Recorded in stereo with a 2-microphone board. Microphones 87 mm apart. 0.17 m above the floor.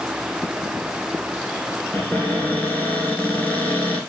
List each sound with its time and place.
1.9 s a cupboard door: 15° left (ahead or behind), 1.1 m